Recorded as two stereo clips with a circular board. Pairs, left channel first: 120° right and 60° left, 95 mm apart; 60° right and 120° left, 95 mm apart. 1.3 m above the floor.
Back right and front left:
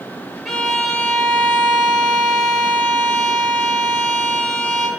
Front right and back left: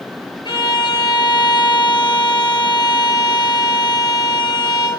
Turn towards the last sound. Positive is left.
turn(degrees=-30)